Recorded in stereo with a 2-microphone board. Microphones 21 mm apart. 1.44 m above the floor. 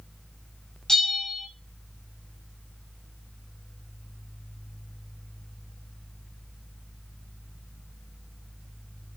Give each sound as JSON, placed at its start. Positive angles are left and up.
{"t": 0.9, "sound": "a bell", "side_deg": 30, "distance_m": 0.7}